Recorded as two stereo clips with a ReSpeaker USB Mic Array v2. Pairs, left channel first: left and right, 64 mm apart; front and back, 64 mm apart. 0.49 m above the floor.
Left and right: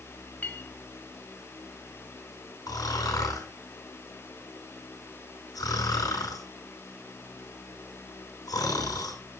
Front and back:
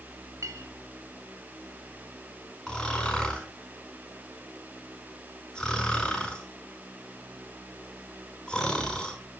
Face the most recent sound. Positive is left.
turn(degrees=80)